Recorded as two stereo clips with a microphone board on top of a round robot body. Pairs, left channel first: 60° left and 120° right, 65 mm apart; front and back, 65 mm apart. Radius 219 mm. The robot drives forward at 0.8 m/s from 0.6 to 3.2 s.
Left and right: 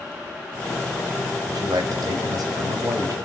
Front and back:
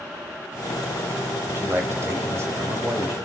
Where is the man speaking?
125° right, 3.5 m; by 3.1 s 140° right, 4 m.